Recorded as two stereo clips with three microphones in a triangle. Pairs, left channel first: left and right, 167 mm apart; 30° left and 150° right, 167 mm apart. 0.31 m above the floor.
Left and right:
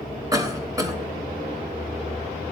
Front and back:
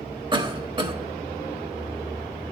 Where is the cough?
135° right, 1.0 m.